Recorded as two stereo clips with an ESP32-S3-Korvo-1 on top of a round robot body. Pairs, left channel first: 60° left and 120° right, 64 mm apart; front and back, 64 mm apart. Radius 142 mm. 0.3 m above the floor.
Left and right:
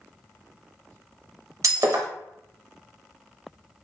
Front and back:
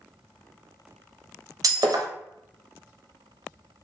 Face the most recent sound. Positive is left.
turn(degrees=-155)